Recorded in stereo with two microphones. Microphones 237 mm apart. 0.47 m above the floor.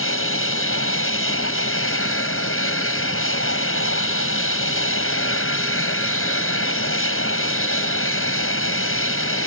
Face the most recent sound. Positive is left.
turn(degrees=55)  # may be behind; listen again after turning